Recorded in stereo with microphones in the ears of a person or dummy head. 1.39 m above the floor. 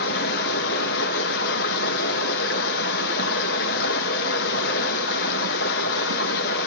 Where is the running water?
60° left (ahead or behind), 0.9 m.